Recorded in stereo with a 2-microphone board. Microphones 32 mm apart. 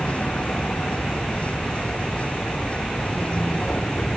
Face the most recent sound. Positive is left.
turn(degrees=45)  # may be behind; listen again after turning